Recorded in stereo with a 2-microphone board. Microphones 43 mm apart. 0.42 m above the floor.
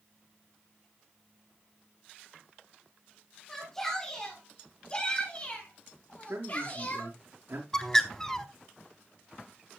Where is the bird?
10° left (ahead or behind), 1.3 m.